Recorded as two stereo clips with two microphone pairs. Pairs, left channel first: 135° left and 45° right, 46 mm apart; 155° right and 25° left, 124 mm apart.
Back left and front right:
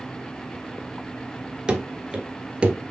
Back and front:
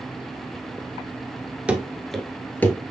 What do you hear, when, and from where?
1.7 s running footsteps: 35° right, 1.1 m; by 2.8 s 95° right, 1.2 m